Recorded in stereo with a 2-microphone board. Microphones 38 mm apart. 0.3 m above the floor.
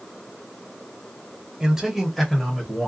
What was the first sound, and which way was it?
A man speaking, 15° right (ahead or behind).